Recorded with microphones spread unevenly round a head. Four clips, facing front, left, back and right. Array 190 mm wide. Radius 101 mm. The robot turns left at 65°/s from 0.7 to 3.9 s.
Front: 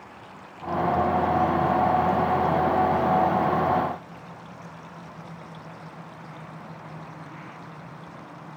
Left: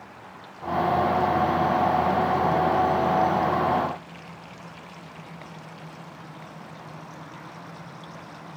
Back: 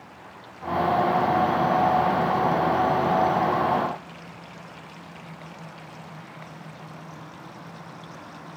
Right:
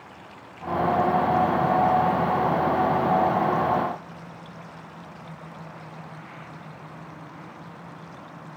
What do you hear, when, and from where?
Only background noise.